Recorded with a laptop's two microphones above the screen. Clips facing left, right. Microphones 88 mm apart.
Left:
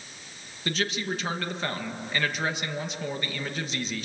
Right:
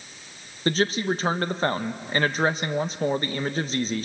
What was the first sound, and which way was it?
A man speaking, 40° right (ahead or behind).